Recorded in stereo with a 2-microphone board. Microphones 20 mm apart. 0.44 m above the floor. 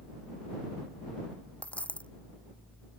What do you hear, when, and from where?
1.6 s a dropped coin: 80° left